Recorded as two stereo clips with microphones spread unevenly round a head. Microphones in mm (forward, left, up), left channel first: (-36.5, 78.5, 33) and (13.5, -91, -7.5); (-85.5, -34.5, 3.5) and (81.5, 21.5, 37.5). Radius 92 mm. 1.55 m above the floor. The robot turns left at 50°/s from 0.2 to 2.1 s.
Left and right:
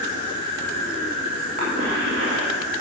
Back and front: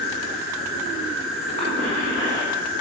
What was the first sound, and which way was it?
An insect, 50° left.